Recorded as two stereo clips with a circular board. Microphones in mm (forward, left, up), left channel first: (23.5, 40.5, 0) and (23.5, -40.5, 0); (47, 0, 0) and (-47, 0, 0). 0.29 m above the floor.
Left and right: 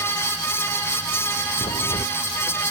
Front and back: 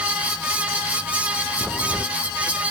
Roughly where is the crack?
Left.